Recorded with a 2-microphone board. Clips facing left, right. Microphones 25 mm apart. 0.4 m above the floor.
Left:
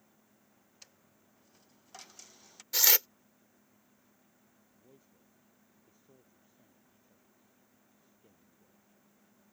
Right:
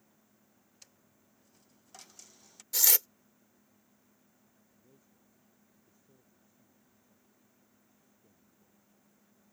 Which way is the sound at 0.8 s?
20° left (ahead or behind).